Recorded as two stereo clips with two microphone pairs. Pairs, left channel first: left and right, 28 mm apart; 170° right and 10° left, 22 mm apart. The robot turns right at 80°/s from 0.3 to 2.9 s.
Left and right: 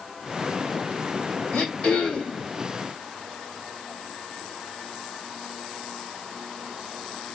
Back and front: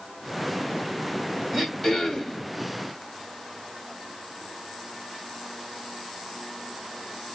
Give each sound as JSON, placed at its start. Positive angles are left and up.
{"t": 1.5, "sound": "throat clearing", "azimuth_deg": 85, "distance_m": 1.5}